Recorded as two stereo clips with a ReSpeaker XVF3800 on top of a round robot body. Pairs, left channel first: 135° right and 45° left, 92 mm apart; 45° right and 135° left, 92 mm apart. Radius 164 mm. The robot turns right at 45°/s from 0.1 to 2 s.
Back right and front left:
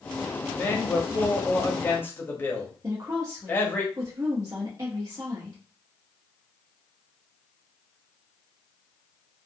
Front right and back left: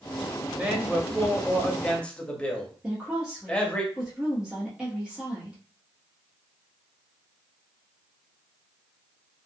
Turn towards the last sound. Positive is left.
turn(degrees=55)